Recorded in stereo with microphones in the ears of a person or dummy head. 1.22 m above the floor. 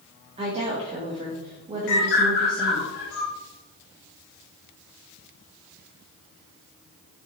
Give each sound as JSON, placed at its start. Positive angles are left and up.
{"t": 0.4, "sound": "a woman speaking", "side_deg": -30, "distance_m": 0.7}
{"t": 1.9, "sound": "a bird", "side_deg": 60, "distance_m": 1.5}